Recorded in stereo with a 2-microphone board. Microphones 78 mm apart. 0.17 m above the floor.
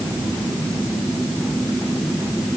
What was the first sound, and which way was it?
Only background noise.